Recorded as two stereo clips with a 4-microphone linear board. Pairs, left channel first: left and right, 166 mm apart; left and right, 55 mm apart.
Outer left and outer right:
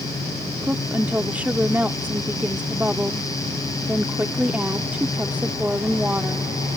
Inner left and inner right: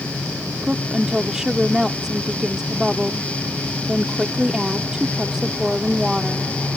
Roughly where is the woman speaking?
Centre.